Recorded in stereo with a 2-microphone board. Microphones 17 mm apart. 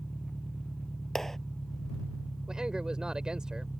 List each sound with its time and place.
0.0 s an engine running: 45° left (ahead or behind)
1.1 s a clap: 15° left (ahead or behind)
2.5 s a man speaking: 60° right (ahead or behind)